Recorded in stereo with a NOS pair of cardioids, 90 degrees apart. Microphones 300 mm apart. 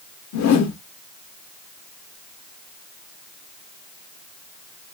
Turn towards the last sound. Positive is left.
turn(degrees=65)